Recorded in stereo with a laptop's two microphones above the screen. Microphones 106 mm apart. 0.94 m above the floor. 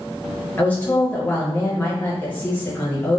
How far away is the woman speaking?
About 0.8 m.